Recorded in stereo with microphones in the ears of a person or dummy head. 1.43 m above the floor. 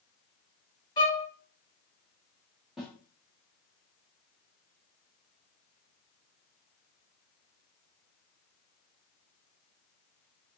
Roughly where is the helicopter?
I don't hear a helicopter.